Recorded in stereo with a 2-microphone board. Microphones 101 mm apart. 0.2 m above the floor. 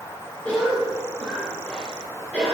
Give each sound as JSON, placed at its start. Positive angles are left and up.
{"t": 0.5, "sound": "a cough", "side_deg": 10, "distance_m": 2.0}